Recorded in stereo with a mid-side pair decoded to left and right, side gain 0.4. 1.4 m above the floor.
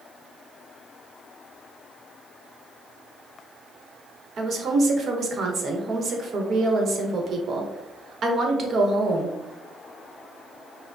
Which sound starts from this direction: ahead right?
A woman speaking, at 4.4 s.